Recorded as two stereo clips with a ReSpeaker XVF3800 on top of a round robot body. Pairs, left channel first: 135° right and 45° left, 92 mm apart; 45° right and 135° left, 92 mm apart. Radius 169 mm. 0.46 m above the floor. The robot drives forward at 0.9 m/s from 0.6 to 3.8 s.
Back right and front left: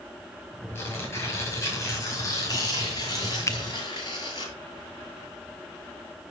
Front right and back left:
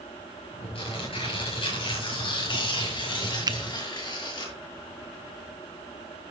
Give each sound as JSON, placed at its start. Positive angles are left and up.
{"t": 0.8, "sound": "tearing paper", "azimuth_deg": -70, "distance_m": 7.0}
{"t": 3.5, "sound": "a finger snap", "azimuth_deg": 170, "distance_m": 1.1}